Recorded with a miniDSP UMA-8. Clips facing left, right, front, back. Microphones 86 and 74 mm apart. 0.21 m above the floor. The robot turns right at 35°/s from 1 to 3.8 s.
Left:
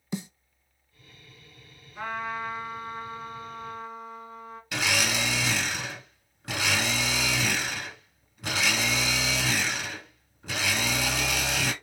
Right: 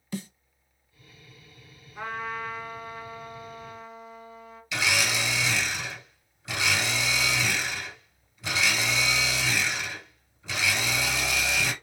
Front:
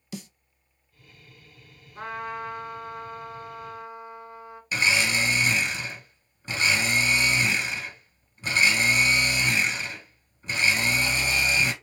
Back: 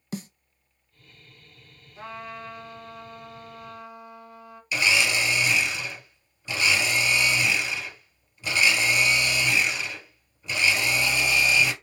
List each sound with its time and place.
0.1 s a snare drum: 155° left, 0.5 m
1.9 s a trumpet: 10° right, 1.5 m; by 4.6 s 55° left, 1.5 m
4.7 s a blender: 45° left, 1.6 m